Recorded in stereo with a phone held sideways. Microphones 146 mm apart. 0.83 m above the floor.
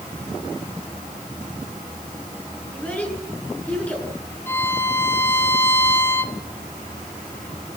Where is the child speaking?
10° left (ahead or behind), 9 m.